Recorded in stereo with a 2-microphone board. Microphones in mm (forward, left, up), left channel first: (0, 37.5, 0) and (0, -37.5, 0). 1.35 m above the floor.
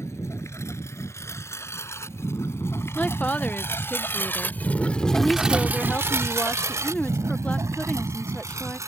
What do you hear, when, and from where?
0.0 s a lawn mower: 35° left (ahead or behind); by 8.9 s 40° right (ahead or behind)
3.0 s a woman speaking: 20° left (ahead or behind)